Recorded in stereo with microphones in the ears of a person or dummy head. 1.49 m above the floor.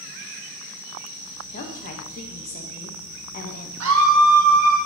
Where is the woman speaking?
40° left (ahead or behind), 0.9 m.